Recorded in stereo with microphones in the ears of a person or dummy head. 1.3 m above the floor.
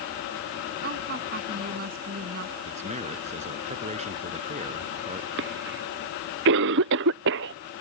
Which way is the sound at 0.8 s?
45° right (ahead or behind).